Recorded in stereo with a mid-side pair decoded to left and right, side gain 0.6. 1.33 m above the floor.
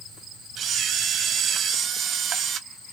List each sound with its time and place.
0.6 s a camera shutter: 45° right, 0.9 m